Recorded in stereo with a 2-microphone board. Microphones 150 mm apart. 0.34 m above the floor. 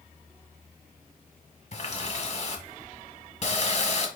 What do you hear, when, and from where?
1.7 s a running tap: 45° left (ahead or behind), 1.1 m